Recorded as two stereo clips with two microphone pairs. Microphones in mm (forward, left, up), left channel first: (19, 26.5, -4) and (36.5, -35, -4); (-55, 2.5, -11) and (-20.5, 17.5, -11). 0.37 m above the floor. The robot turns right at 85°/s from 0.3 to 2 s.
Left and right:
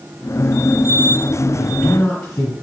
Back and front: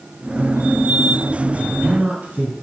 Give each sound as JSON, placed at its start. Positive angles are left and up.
{"t": 1.6, "sound": "a man speaking", "azimuth_deg": 30, "distance_m": 2.0}